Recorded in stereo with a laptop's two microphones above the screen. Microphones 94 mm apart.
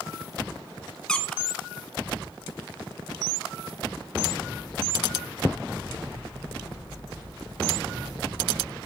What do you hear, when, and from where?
1.1 s a squeak: 10° left (ahead or behind), 0.9 m